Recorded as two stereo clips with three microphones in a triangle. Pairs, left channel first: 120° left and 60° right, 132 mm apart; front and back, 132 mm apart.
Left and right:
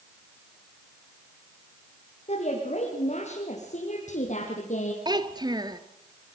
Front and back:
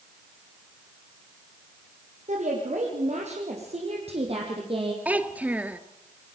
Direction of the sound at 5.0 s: 105° right.